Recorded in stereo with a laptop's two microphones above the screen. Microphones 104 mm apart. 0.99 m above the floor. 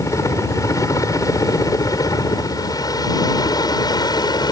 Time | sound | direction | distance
0.0 | a helicopter | 30° left (ahead or behind) | ?